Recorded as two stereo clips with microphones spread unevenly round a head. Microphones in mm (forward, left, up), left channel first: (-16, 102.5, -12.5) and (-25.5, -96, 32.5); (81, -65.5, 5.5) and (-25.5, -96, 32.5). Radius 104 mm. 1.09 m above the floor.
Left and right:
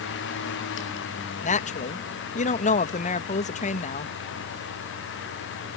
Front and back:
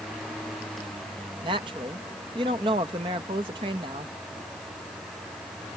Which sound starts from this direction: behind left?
A woman speaking, at 1.4 s.